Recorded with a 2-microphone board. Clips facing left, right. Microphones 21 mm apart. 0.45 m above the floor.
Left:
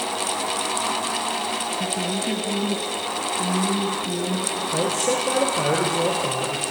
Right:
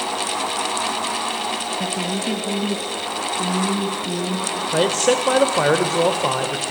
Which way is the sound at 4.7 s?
50° right (ahead or behind).